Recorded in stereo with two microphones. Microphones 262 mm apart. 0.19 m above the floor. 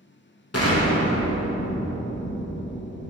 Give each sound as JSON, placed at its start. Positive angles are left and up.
{"t": 0.5, "sound": "an explosion", "side_deg": 65, "distance_m": 0.9}